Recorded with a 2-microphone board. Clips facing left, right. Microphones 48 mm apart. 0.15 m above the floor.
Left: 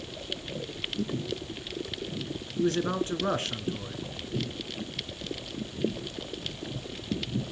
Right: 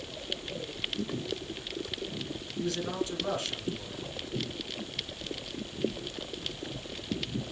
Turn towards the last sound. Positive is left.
turn(degrees=40)  # may be behind; listen again after turning